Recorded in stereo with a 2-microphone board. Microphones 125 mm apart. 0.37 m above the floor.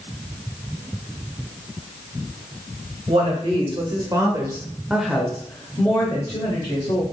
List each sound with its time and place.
3.1 s a woman speaking: 50° right (ahead or behind), 1.5 m; by 7.0 s 40° left (ahead or behind), 1.7 m